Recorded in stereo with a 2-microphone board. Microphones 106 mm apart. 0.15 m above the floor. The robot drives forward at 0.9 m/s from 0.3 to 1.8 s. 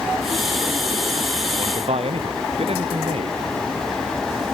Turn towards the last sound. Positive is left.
turn(degrees=-70)  # may be behind; listen again after turning